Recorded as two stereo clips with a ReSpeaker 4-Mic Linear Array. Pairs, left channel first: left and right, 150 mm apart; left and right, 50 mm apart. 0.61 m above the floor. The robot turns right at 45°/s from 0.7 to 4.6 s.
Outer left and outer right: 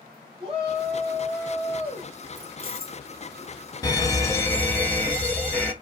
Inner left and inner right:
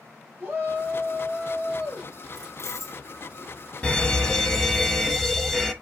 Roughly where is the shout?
Ahead right.